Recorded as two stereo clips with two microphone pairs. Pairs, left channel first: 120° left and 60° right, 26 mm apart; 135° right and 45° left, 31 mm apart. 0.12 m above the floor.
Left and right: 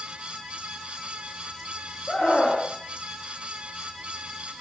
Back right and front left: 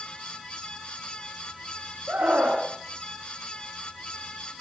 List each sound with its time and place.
2.1 s a scream: 55° left, 7.5 m